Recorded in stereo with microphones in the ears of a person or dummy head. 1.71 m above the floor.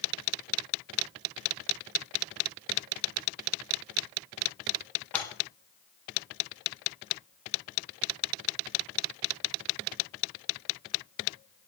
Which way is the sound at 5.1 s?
5° left (ahead or behind).